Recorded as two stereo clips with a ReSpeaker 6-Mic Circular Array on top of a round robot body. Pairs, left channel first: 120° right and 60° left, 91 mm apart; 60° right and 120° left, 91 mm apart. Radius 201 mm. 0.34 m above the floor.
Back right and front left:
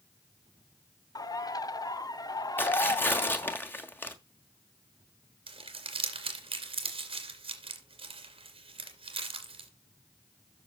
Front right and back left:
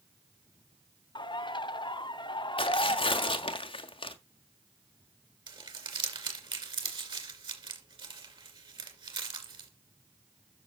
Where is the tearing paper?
55° right, 1.7 m.